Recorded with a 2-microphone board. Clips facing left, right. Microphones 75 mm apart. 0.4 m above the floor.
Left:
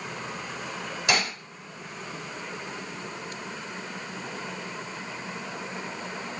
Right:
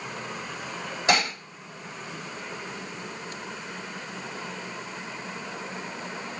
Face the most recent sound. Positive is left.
turn(degrees=-30)  # may be behind; listen again after turning